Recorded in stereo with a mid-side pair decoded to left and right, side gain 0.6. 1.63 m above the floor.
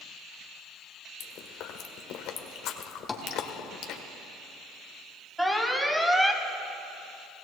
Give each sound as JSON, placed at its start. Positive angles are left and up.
{"t": 1.2, "sound": "chewing", "azimuth_deg": 65, "distance_m": 1.3}
{"t": 3.1, "sound": "tapping", "azimuth_deg": 20, "distance_m": 1.7}
{"t": 5.4, "sound": "an alarm", "azimuth_deg": -5, "distance_m": 1.3}